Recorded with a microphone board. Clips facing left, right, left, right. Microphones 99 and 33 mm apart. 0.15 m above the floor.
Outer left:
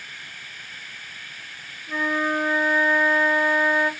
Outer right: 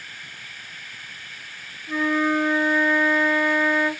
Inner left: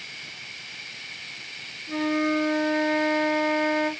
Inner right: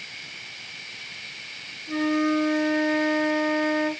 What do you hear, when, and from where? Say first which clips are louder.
1.9 s a flute: outer right 3 dB, inner right 1 dB; 10° left (ahead or behind), 1.7 m